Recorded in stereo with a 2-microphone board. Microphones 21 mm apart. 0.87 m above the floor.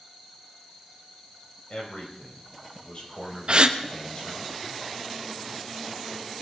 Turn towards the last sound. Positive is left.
turn(degrees=-45)  # may be behind; listen again after turning